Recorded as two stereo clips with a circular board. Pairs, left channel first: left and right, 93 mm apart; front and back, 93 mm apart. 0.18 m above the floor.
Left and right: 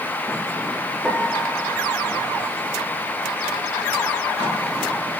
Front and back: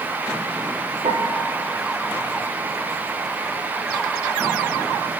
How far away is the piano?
About 2.0 m.